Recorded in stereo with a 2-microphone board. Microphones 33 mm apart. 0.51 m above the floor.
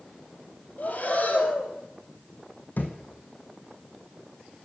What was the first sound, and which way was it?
Breathing, 50° left (ahead or behind).